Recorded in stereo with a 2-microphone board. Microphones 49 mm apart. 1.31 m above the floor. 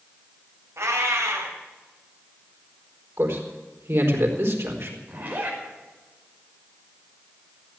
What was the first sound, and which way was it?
A cat meowing, 70° right (ahead or behind).